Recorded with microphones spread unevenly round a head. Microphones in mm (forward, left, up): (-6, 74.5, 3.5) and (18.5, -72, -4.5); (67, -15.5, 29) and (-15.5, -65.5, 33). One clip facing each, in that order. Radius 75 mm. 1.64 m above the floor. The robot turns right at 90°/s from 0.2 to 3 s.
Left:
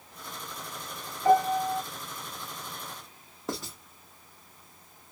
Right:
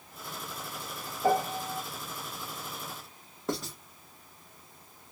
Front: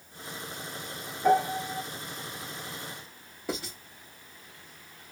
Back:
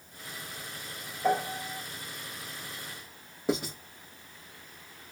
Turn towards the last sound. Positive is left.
turn(degrees=180)